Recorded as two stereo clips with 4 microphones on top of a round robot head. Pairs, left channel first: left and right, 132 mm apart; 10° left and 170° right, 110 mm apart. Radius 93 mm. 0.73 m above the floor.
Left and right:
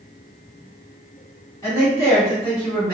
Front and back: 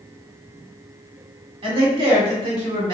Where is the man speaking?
160° left, 2.0 m.